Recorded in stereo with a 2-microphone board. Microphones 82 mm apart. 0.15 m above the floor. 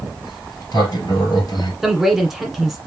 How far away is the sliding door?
About 2.5 m.